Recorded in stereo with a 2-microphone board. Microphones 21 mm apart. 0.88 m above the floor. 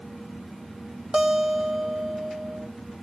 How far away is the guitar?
About 0.6 m.